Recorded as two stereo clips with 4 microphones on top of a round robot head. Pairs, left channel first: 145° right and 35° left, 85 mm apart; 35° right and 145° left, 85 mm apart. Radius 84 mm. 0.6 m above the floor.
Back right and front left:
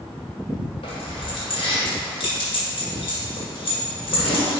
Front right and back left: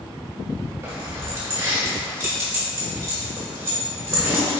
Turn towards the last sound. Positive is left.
turn(degrees=-155)